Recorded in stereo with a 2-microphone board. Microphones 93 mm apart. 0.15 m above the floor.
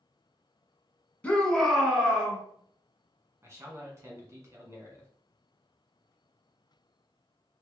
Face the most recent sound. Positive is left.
turn(degrees=-30)  # may be behind; listen again after turning